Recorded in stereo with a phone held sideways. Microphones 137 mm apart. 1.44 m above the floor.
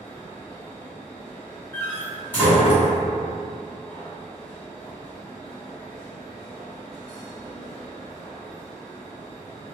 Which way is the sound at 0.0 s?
5° left (ahead or behind).